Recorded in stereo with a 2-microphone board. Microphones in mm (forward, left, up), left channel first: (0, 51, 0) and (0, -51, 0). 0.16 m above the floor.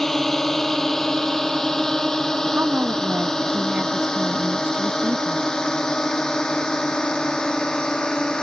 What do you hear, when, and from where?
0.0 s a drone: 5° left (ahead or behind)
2.5 s a woman speaking: 10° right (ahead or behind)